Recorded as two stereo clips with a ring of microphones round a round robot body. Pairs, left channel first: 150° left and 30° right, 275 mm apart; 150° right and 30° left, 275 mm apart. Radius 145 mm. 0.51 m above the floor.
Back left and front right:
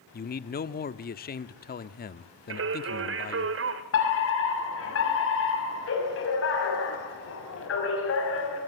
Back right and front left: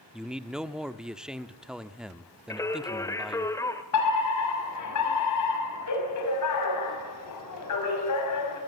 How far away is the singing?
About 1.7 m.